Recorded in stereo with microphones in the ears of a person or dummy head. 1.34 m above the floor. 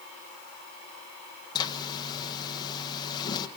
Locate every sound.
1.6 s a zipper: 25° left (ahead or behind), 1.3 m